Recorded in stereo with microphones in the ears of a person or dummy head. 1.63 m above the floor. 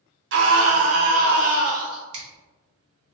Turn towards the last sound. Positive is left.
turn(degrees=-35)  # may be behind; listen again after turning